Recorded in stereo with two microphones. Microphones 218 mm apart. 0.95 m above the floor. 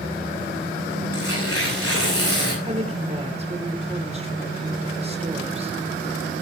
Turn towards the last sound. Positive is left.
turn(degrees=-25)  # may be behind; listen again after turning